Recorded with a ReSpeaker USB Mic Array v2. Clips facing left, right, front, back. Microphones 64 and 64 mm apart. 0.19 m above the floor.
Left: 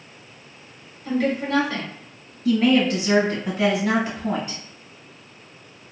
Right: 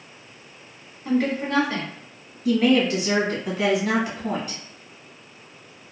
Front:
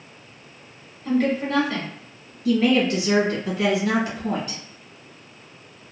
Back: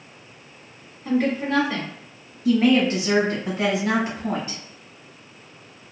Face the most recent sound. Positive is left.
turn(degrees=-175)